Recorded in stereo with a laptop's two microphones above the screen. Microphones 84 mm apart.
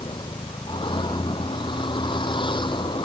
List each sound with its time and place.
0.0 s a vehicle: 75° left (ahead or behind)